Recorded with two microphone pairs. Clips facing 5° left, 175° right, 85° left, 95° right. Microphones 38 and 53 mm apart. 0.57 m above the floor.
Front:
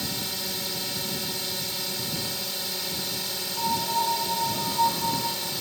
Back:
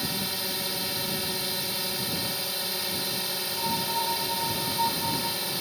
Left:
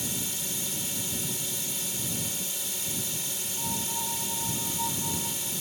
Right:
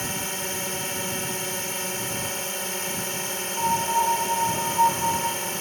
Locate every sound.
0.0 s a drone: 100° right
3.6 s a piano: 65° right